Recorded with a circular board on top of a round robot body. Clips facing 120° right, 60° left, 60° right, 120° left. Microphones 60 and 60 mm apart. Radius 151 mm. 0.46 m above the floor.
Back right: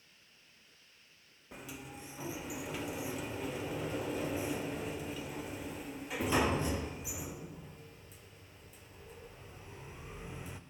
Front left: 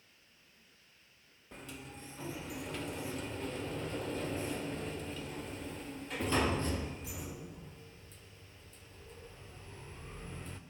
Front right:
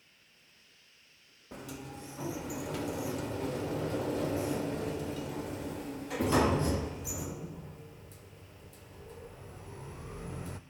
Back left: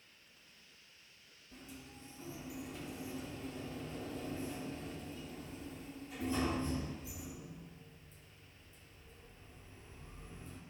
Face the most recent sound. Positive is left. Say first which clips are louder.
# back right 1 dB, front right 10 dB
turn(degrees=-40)